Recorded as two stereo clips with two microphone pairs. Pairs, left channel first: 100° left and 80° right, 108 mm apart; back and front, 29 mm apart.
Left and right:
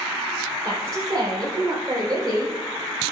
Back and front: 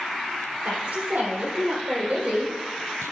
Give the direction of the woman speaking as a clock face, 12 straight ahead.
1 o'clock.